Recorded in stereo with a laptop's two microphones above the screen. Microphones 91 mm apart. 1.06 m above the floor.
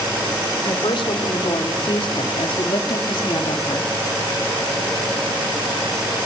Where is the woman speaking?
70° left (ahead or behind), 4 m.